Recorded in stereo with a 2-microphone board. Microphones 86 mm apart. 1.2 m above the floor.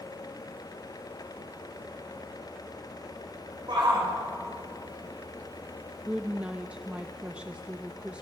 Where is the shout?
55° right (ahead or behind), 6.5 m.